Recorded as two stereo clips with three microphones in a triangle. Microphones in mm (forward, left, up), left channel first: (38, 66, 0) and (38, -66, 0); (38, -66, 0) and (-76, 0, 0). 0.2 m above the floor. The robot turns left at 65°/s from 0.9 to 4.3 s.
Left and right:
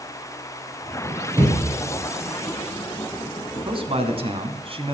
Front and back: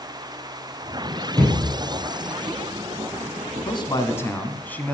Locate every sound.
1.4 s a thud: 140° right, 5.5 m; by 1.6 s 155° right, 5.5 m
3.6 s a man speaking: 60° right, 1.3 m; by 5.0 s 105° right, 1.3 m